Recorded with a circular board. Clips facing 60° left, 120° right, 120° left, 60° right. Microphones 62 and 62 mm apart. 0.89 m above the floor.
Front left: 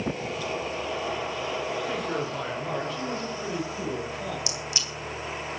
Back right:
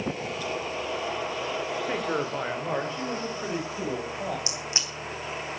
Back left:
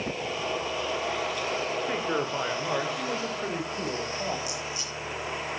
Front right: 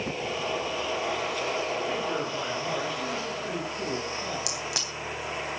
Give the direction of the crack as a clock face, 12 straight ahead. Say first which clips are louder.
Even, front right 1 dB; 2 o'clock.